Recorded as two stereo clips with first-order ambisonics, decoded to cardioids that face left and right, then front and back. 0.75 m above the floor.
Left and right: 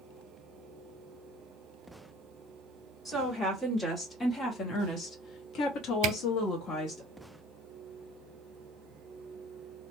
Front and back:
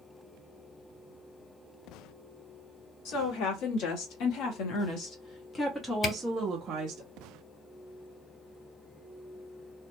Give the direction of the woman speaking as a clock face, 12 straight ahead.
12 o'clock.